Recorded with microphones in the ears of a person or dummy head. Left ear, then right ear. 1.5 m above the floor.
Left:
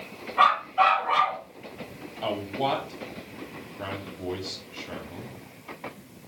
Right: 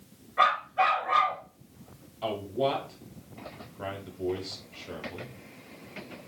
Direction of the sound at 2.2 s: 5° left (ahead or behind).